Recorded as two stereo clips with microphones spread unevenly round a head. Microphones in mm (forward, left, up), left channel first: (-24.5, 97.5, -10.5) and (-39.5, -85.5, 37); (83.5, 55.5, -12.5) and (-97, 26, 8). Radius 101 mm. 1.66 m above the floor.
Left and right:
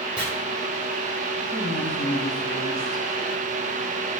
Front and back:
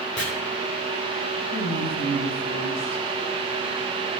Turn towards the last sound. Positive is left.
turn(degrees=0)